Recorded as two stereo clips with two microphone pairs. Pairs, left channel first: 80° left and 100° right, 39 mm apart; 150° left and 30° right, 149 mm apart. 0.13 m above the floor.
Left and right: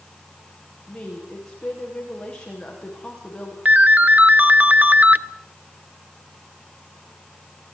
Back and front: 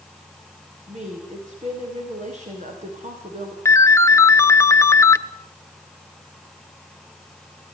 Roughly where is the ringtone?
Behind right.